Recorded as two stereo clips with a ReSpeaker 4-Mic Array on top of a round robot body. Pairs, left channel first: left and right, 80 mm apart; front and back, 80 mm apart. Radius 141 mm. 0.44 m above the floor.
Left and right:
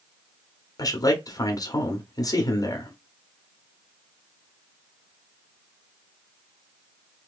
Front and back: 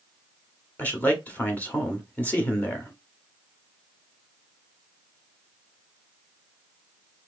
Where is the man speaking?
65° left, 1.1 m.